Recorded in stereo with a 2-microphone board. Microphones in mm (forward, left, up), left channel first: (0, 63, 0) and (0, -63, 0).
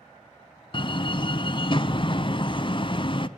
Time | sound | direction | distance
0.7 | a door slam | 40° left (ahead or behind) | 0.9 m